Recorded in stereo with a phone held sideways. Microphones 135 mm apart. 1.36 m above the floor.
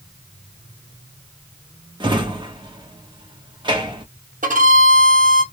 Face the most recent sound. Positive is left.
turn(degrees=-80)